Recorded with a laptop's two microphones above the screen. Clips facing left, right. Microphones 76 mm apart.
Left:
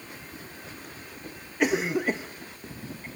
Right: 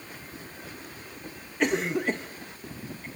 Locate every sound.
1.6 s a cough: 5° left (ahead or behind), 0.6 m